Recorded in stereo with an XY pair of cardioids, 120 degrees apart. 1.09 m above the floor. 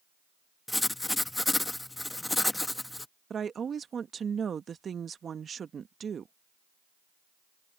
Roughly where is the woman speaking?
Ahead right.